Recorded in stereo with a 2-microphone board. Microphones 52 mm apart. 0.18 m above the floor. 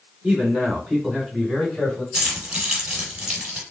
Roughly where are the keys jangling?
Centre.